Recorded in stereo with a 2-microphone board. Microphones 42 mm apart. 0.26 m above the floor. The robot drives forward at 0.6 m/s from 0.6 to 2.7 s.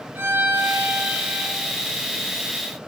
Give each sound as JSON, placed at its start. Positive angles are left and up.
{"t": 0.1, "sound": "a violin", "side_deg": -55, "distance_m": 5.0}